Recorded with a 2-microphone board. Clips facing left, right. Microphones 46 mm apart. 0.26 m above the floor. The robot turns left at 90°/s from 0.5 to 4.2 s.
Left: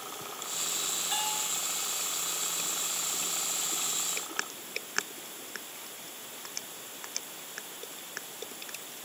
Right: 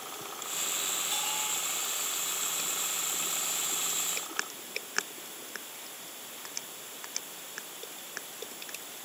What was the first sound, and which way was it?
A bell, 150° left.